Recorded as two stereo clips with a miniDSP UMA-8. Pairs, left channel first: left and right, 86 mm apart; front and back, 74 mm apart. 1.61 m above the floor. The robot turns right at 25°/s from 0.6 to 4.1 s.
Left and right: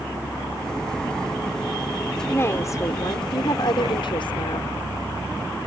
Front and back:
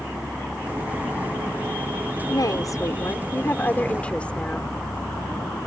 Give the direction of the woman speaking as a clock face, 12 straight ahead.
11 o'clock.